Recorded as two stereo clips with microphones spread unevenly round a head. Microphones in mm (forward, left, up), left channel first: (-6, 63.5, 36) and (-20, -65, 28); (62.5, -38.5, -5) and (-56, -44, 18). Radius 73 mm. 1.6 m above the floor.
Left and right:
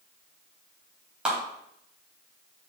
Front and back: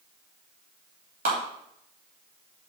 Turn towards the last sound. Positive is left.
turn(degrees=180)